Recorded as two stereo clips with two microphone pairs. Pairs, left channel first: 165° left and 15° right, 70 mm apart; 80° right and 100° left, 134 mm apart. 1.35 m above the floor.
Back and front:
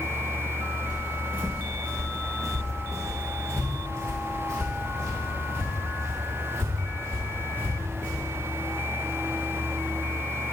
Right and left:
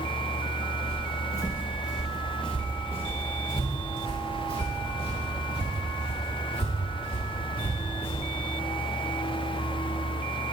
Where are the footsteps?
50° left, 2 m; by 8.2 s 65° right, 5.5 m.